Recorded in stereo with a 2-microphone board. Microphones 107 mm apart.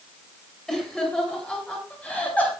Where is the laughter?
5° left (ahead or behind), 8.5 m; by 2.5 s 15° left (ahead or behind), 8 m.